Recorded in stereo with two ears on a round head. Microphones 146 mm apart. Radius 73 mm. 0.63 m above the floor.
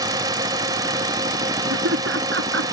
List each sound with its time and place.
0.0 s a drone: 20° right (ahead or behind)
1.7 s laughter: 80° right